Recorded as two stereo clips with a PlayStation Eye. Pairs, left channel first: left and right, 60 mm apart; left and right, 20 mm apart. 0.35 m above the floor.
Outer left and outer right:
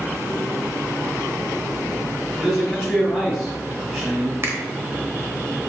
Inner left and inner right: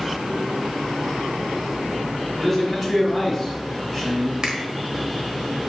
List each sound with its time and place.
2.4 s a man speaking: 5° left (ahead or behind), 1.8 m
4.4 s a finger snap: 45° right (ahead or behind), 0.9 m